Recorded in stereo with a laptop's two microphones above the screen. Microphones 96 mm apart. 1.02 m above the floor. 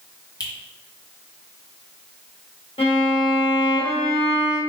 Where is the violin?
80° left, 1.1 m.